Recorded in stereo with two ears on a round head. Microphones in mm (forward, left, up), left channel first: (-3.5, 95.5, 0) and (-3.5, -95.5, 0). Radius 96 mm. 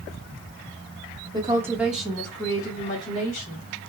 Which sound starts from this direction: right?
A woman speaking, at 1.3 s.